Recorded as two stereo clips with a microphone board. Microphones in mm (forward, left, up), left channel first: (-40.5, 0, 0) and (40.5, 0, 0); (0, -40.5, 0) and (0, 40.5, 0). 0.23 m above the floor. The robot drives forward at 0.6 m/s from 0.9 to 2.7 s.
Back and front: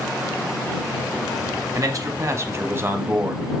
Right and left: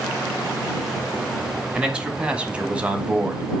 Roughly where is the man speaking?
Ahead.